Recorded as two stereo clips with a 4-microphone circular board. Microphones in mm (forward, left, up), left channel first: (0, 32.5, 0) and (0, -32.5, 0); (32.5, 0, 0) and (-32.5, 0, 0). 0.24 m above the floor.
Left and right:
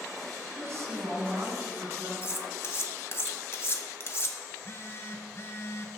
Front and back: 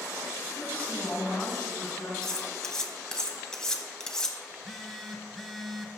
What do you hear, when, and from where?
0.6 s a woman speaking: 60° right, 1.9 m
2.2 s cutlery clinking: 80° left, 1.0 m
4.5 s a phone buzzing: 90° left, 0.8 m